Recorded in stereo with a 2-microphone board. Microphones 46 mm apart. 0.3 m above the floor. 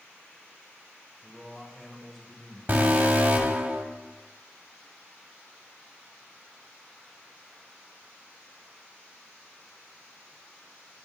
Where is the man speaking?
15° left (ahead or behind), 1.7 m; by 2.6 s 15° right (ahead or behind), 1.7 m.